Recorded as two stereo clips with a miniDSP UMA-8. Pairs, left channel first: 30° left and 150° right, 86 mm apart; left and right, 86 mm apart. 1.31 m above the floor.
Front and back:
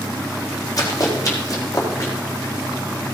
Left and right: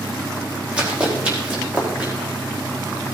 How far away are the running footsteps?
About 4 m.